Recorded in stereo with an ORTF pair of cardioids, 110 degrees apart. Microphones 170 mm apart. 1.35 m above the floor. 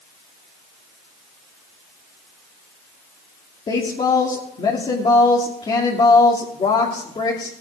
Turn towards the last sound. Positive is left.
turn(degrees=30)